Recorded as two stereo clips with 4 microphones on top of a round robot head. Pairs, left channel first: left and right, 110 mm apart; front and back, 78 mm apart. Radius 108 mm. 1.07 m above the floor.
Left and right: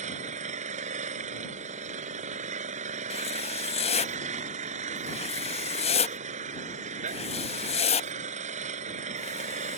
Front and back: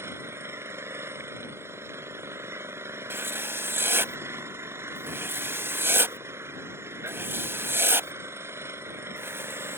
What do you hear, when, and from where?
0.0 s an engine running: 115° right
3.1 s writing: 120° left